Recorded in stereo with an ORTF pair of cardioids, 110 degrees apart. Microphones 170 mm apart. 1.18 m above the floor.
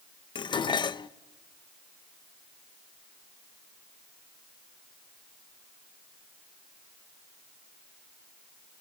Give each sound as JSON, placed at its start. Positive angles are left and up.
{"t": 0.3, "sound": "dishes clattering", "azimuth_deg": 25, "distance_m": 0.6}